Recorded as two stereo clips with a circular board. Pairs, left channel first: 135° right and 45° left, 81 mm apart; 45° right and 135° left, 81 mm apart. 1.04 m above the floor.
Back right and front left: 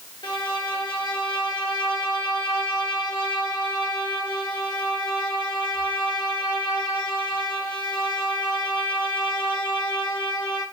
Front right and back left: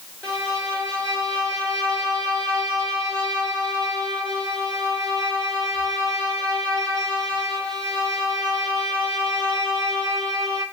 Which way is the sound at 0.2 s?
120° right.